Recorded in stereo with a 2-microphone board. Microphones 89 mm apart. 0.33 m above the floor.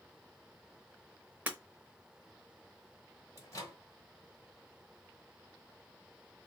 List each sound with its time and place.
1.5 s breaking glass: 20° right (ahead or behind), 0.8 m
3.4 s a microwave: 35° left (ahead or behind), 1.4 m